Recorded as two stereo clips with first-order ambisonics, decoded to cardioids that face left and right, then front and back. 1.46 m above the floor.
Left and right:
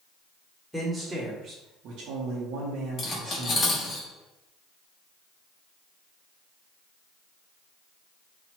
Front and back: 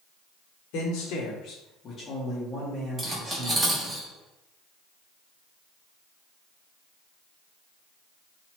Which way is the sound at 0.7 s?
Straight ahead.